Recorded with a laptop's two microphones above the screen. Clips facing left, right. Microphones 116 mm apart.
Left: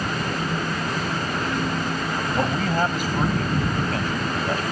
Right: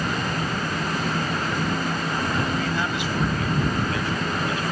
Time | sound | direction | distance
2.4 | a man speaking | 45° left (ahead or behind) | ?